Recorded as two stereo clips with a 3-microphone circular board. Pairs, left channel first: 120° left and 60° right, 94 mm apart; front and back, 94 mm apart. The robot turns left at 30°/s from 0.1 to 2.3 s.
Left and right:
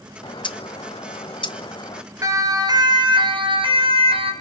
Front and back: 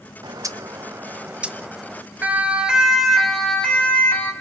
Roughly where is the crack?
I don't hear a crack.